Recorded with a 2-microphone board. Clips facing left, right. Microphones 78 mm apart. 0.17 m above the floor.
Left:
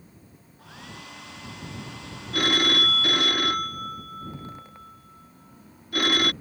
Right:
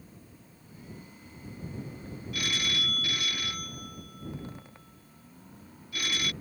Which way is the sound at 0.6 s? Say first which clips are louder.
Left 5 dB; 90° left.